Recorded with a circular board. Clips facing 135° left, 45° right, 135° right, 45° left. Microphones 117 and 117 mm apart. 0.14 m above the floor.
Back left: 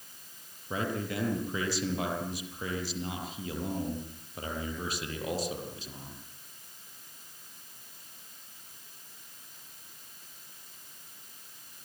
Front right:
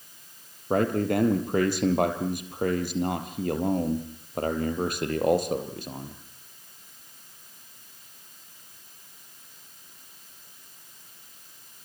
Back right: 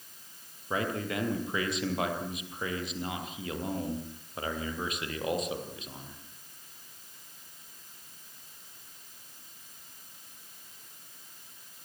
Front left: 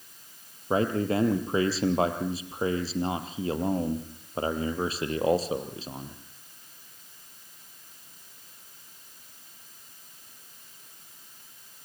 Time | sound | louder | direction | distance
0.7 | a man speaking | front right 10 dB, front left 7 dB | 15° right | 3.5 m